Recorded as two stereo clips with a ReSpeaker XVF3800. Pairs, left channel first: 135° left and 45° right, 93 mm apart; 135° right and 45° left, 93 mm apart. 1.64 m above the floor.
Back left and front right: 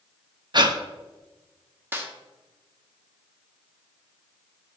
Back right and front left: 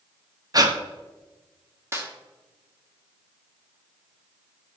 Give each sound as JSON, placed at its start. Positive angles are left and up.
{"t": 0.5, "sound": "breathing", "azimuth_deg": -5, "distance_m": 1.0}
{"t": 1.9, "sound": "a snare drum", "azimuth_deg": 5, "distance_m": 1.4}